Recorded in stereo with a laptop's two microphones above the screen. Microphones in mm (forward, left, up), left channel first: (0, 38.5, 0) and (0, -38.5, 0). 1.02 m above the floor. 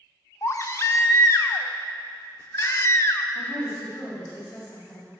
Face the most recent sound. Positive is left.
turn(degrees=50)  # may be behind; listen again after turning